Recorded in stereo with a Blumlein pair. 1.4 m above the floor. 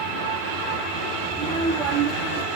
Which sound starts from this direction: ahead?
A child speaking, at 1.3 s.